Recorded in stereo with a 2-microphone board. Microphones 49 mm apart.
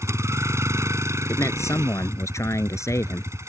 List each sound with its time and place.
0.0 s a vehicle: 75° right (ahead or behind)
1.3 s a man speaking: 90° left